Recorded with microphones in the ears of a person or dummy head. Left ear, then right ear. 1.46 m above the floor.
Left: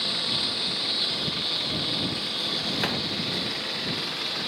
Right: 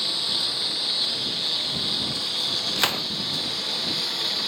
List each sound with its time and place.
0.0 s a lawn mower: 20° right (ahead or behind); by 4.5 s 25° right (ahead or behind)
2.8 s a gunshot: 50° right (ahead or behind)